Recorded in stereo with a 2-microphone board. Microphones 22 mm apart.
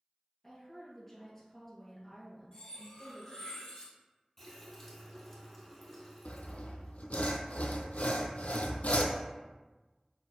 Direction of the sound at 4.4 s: 10° left (ahead or behind).